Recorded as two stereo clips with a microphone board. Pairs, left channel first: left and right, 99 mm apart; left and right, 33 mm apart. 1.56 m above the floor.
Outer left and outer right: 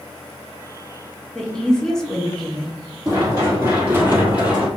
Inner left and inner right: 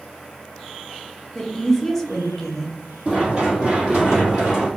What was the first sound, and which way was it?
A woman speaking, 5° left (ahead or behind).